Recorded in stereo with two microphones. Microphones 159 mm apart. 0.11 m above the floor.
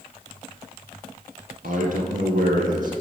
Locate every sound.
1.6 s a man speaking: 55° right (ahead or behind), 2.5 m